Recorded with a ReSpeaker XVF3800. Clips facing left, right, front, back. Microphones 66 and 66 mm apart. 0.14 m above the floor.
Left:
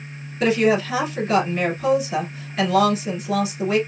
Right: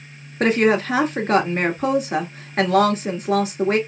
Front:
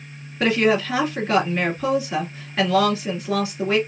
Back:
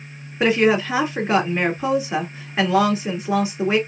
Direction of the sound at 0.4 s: 115° right.